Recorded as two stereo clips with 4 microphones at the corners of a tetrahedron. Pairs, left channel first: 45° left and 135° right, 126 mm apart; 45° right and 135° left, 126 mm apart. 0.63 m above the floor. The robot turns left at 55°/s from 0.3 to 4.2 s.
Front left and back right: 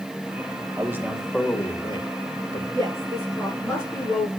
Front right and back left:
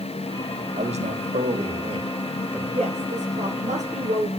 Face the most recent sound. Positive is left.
turn(degrees=95)